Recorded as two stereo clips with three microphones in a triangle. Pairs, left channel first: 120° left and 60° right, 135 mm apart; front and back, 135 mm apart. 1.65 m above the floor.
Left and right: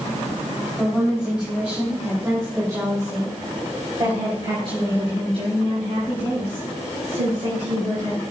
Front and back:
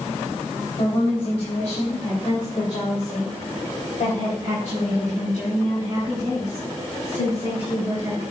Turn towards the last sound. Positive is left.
turn(degrees=-40)